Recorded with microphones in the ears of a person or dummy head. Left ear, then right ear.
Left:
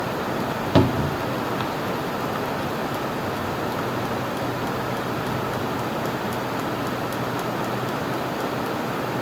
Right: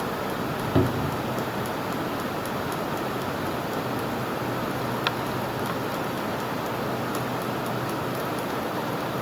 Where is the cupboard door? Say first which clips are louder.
Left 5 dB; 35° left (ahead or behind), 0.5 m.